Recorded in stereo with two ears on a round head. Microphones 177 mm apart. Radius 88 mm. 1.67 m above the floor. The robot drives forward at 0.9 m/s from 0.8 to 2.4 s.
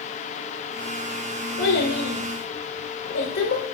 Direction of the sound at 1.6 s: 65° left (ahead or behind).